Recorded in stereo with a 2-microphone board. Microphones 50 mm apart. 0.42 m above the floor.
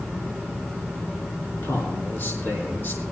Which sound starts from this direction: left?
A man speaking, at 1.6 s.